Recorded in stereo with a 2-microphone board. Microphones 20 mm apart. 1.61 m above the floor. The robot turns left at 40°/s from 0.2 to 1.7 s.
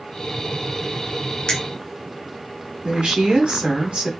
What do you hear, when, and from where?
1.5 s a finger snap: 45° left (ahead or behind), 0.9 m
2.8 s a woman speaking: 85° right, 1.6 m